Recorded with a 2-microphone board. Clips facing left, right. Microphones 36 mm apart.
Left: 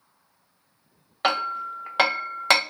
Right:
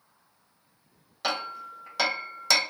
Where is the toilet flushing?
No toilet flushing in this recording.